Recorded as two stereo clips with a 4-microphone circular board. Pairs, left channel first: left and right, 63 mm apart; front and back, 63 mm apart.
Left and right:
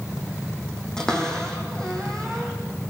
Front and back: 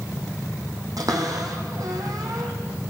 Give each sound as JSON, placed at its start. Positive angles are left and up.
{"t": 1.0, "sound": "a cupboard door", "azimuth_deg": 170, "distance_m": 1.8}